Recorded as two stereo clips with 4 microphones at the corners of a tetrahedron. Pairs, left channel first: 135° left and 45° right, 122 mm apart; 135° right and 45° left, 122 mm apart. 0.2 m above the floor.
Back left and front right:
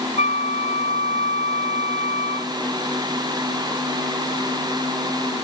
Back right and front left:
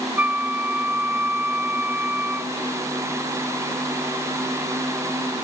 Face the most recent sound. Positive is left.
turn(degrees=120)